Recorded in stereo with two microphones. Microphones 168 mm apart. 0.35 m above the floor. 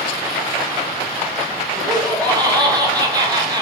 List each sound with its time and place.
1.8 s laughter: 25° right (ahead or behind), 0.9 m